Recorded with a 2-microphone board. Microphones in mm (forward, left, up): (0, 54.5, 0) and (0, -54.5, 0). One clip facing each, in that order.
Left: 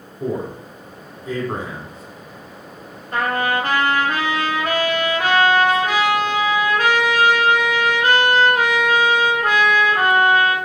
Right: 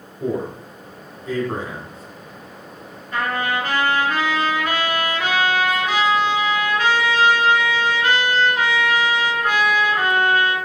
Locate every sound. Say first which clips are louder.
0.2 s a man speaking: even; 10° left (ahead or behind), 1.1 m
3.1 s a trumpet: left 2 dB; 50° left (ahead or behind), 1.2 m